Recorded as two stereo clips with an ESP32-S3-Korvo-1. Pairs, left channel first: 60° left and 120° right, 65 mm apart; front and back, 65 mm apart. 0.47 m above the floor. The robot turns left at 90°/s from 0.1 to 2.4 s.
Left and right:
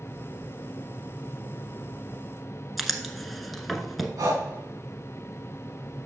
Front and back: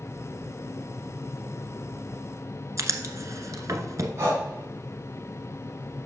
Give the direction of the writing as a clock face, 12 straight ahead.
7 o'clock.